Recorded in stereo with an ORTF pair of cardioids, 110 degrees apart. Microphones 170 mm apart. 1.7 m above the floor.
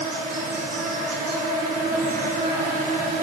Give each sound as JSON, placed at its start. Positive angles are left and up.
{"t": 0.0, "sound": "an insect", "azimuth_deg": -50, "distance_m": 3.0}